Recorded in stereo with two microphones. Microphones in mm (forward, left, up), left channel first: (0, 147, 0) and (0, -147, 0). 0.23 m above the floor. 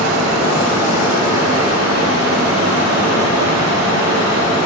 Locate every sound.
0.0 s running water: 60° right (ahead or behind), 1.8 m